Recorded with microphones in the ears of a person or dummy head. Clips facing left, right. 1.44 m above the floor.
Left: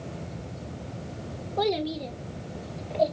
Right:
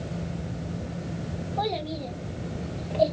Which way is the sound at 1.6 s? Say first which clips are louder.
Left 4 dB; 40° left (ahead or behind).